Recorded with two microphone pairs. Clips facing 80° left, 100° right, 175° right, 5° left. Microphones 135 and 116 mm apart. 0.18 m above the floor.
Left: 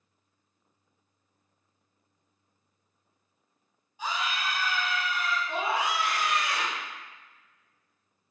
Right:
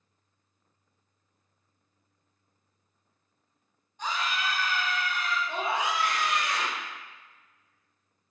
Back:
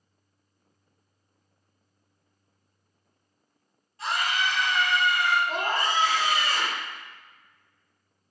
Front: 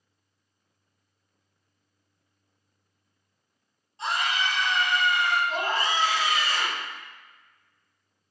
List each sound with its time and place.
4.0 s a scream: 10° left, 1.3 m
5.5 s a scream: 165° left, 1.9 m